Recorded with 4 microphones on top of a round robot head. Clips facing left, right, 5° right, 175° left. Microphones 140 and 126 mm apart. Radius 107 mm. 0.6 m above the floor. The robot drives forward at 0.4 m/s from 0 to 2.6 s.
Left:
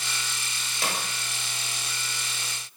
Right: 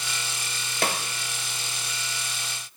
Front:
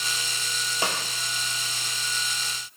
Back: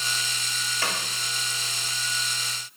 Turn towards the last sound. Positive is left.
turn(degrees=-120)